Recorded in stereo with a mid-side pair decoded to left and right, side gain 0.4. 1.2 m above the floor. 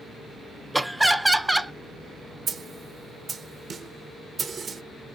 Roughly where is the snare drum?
Ahead right.